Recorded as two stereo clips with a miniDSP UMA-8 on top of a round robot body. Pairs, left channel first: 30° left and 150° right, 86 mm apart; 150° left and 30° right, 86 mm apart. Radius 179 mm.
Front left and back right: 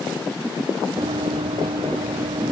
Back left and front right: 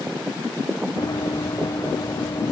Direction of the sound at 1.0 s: 165° right.